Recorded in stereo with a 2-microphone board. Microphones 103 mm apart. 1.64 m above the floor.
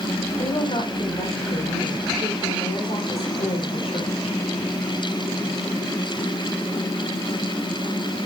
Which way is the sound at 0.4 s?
65° left (ahead or behind).